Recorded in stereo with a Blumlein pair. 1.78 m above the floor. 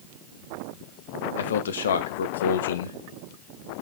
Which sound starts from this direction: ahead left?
A man speaking, at 1.4 s.